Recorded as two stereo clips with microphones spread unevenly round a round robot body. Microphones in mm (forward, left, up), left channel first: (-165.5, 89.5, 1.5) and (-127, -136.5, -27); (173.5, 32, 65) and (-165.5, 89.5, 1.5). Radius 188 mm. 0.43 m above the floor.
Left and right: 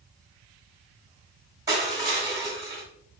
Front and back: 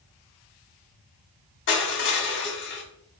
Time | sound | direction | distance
1.7 | crushing | 40° right | 1.3 m